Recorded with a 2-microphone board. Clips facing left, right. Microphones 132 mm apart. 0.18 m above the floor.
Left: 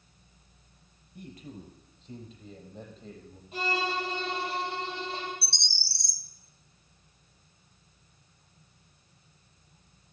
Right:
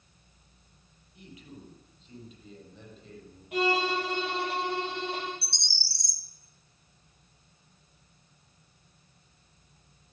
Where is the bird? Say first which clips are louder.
Left 1 dB; 25° left (ahead or behind), 1.0 m.